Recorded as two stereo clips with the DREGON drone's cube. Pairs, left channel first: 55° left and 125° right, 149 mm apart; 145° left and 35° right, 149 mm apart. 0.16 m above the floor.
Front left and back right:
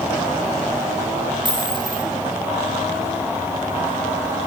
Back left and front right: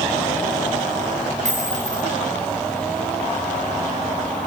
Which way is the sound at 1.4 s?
70° right.